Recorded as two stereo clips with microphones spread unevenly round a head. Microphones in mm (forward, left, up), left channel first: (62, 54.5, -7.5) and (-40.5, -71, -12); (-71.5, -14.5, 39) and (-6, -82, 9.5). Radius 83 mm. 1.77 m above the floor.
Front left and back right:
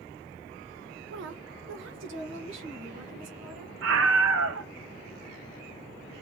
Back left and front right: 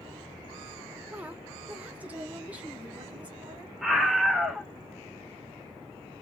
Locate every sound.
1.1 s a woman speaking: 130° right, 0.6 m; by 3.7 s 120° right, 2 m
3.8 s a scream: 135° right, 1.3 m